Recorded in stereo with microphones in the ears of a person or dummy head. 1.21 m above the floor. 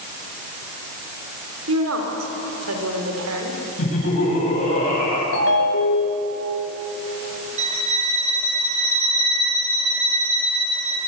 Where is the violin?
35° right (ahead or behind), 2 m.